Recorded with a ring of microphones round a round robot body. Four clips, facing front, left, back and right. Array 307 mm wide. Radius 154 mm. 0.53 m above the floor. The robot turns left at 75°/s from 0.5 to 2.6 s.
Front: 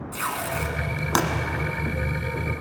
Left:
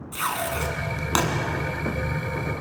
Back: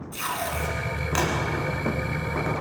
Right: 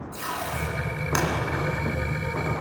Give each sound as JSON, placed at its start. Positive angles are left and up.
{"t": 0.1, "sound": "tape being pulled", "azimuth_deg": 70, "distance_m": 2.5}